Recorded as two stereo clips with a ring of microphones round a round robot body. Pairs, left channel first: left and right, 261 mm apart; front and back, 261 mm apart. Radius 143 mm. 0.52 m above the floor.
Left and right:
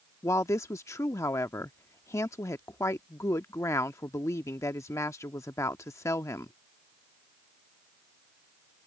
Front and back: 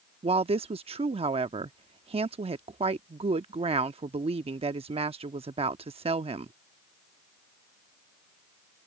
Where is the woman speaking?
155° left.